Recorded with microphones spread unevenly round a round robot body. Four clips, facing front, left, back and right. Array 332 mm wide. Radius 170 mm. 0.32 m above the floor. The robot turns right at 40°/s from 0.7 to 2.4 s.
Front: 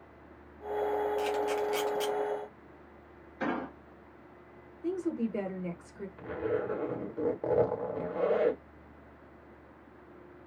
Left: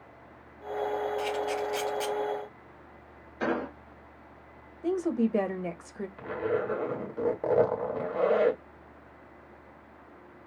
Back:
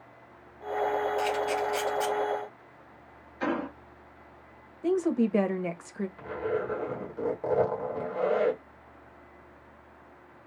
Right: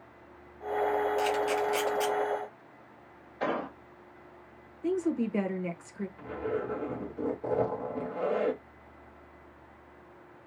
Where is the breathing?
I don't hear breathing.